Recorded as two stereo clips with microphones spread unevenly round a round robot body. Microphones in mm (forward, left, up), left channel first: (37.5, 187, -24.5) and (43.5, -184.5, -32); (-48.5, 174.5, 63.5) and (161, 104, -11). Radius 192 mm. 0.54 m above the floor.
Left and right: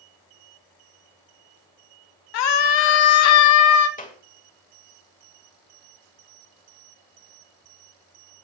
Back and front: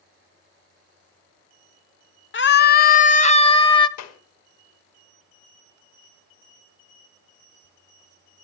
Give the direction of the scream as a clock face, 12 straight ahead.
8 o'clock.